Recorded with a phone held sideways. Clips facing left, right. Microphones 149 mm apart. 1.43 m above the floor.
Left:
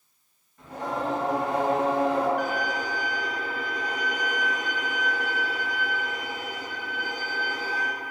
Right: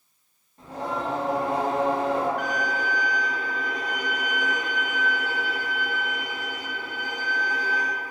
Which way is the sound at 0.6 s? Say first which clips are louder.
Even; 30° right (ahead or behind).